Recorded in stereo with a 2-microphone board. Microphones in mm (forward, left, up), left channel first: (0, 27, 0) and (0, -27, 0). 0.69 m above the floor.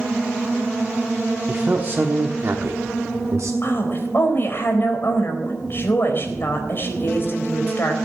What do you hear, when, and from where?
1.5 s a man speaking: 25° right (ahead or behind), 1.3 m; by 3.5 s 70° right (ahead or behind), 1.5 m
3.6 s a woman speaking: 45° left (ahead or behind), 4 m